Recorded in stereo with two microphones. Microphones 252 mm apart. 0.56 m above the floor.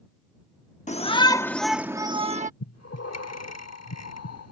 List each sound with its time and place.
0.9 s a shout: 30° left (ahead or behind); by 2.5 s 30° right (ahead or behind)
2.6 s breathing: 80° left